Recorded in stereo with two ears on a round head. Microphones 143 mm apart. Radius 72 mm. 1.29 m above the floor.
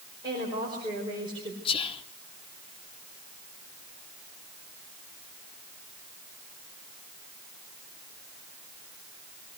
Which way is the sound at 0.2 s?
25° right (ahead or behind).